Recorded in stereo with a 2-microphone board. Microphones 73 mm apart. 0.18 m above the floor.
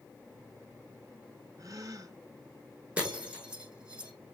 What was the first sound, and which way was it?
A gasp, 50° right (ahead or behind).